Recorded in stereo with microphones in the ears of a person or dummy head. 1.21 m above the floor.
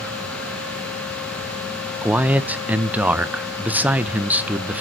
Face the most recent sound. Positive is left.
turn(degrees=-5)  # may be behind; listen again after turning